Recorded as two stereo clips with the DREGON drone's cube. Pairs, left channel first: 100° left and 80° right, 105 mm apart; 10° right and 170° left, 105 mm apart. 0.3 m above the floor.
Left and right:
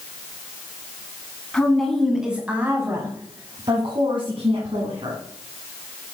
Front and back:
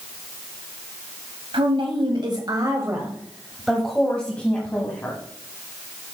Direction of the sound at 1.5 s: Straight behind.